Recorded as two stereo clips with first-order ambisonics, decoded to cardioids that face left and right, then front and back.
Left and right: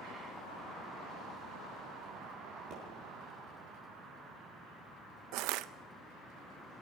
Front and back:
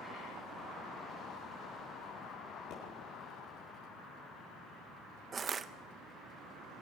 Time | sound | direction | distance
2.7 | a pop | 50° right | 7.5 m
5.3 | crushing | 115° right | 0.5 m